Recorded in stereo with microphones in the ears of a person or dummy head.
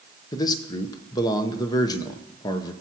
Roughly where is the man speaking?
Left.